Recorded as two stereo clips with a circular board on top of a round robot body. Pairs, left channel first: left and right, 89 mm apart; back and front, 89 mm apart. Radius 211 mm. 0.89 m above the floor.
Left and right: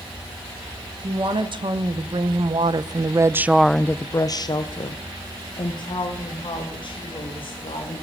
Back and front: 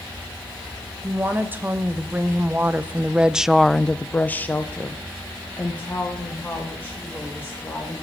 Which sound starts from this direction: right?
A woman speaking, at 1.0 s.